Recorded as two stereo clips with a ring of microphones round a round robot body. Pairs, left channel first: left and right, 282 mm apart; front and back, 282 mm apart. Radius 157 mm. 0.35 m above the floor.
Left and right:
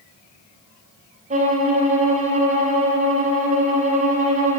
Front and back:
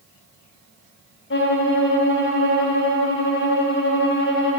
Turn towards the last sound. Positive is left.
turn(degrees=-30)